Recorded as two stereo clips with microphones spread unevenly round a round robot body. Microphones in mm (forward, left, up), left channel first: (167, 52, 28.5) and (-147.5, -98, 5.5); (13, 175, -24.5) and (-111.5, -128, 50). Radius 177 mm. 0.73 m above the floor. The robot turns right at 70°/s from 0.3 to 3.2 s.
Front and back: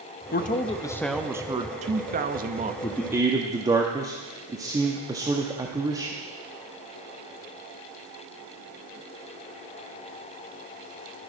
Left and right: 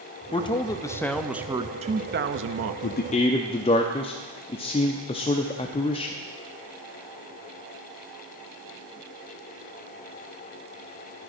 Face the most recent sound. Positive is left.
turn(degrees=130)